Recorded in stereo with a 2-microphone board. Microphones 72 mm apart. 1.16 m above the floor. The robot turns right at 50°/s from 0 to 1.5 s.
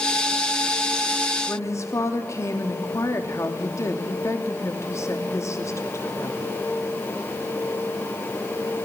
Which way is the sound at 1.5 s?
45° left (ahead or behind).